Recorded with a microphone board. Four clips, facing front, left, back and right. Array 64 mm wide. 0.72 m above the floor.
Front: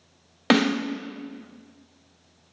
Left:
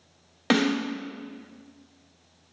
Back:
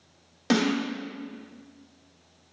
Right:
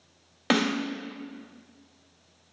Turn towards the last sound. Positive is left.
turn(degrees=0)